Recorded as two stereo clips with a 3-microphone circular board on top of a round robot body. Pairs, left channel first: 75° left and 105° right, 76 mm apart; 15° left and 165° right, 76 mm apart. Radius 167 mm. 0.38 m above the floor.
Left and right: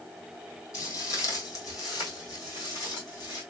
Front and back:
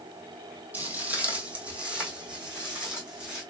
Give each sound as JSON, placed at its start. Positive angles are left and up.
{"t": 0.7, "sound": "footsteps", "azimuth_deg": 125, "distance_m": 1.3}